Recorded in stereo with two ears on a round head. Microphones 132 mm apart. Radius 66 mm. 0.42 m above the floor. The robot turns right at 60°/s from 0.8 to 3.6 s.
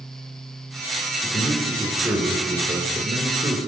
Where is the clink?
I don't hear a clink.